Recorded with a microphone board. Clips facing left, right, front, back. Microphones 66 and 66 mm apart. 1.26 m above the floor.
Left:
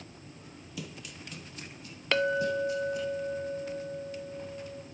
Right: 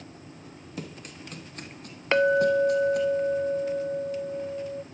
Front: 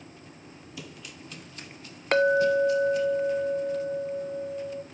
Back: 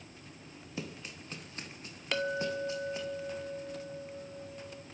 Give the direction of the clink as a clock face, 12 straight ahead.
1 o'clock.